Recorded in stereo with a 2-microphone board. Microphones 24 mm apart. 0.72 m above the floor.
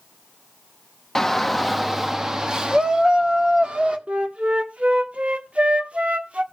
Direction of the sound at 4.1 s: 65° right (ahead or behind).